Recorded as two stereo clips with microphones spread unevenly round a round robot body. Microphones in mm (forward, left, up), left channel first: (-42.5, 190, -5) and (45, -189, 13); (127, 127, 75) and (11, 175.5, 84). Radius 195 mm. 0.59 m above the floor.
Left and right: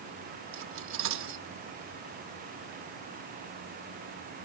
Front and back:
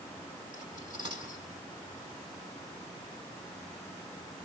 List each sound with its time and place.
0.5 s cutlery clinking: 135° right, 0.9 m